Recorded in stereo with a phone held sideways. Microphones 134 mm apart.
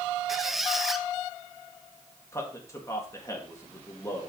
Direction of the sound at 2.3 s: 25° left (ahead or behind).